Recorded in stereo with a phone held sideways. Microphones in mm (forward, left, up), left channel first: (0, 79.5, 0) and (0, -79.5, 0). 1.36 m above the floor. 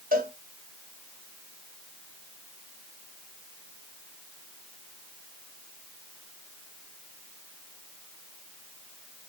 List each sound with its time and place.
0.1 s a cowbell: 60° right (ahead or behind), 1.2 m